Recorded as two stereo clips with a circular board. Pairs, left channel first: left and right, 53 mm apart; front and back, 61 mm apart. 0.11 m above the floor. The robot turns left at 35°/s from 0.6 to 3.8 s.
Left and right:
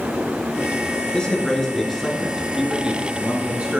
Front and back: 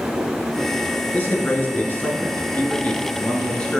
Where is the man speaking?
30° left, 1.4 m; by 3.8 s 60° right, 1.4 m.